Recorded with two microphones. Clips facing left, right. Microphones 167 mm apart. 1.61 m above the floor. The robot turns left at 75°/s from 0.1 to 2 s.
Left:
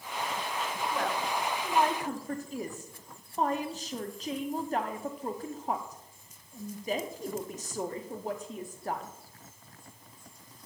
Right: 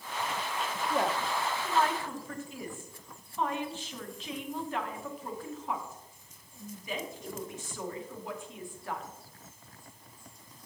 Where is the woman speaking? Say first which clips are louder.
Right 3 dB; 35° right (ahead or behind), 0.6 m; by 9.1 s 40° left (ahead or behind), 0.6 m.